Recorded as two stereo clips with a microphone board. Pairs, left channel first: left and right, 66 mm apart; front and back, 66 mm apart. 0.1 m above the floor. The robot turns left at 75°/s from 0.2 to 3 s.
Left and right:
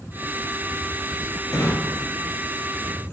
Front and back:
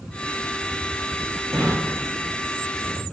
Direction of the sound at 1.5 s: 75° left.